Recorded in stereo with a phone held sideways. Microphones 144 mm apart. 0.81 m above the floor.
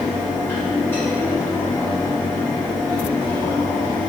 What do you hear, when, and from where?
0.0 s a fan: 15° left (ahead or behind), 1.9 m